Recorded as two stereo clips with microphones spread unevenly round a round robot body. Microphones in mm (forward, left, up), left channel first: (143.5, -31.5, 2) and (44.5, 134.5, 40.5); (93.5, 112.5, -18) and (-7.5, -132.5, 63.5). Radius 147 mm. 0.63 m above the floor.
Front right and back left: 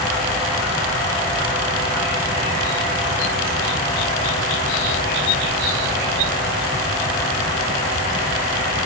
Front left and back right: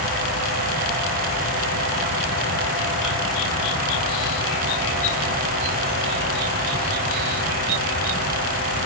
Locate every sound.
Only background noise.